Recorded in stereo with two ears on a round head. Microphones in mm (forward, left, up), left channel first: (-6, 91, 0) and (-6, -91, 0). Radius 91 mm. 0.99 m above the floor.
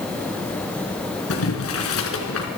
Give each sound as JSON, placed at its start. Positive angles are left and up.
{"t": 1.3, "sound": "boiling", "side_deg": 80, "distance_m": 4.5}